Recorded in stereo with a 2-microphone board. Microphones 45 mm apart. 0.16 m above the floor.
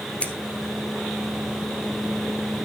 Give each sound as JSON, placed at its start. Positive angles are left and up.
{"t": 0.2, "sound": "scissors", "side_deg": 25, "distance_m": 1.7}